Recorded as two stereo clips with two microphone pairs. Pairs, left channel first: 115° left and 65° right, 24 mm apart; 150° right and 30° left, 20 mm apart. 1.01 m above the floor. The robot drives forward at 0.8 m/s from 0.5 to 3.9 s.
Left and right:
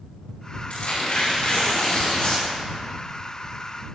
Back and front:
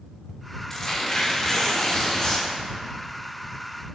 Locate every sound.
0.7 s tearing paper: 135° left, 3.5 m; by 2.5 s 150° left, 4.5 m